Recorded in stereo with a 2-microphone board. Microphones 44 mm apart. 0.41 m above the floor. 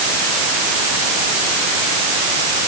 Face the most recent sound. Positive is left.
No sound to turn to.